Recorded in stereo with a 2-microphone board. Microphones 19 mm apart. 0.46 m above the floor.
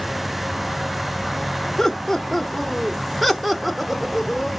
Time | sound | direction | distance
1.8 | laughter | 15° left (ahead or behind) | 1.0 m